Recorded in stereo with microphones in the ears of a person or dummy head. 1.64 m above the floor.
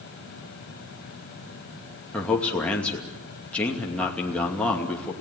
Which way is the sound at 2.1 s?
15° left (ahead or behind).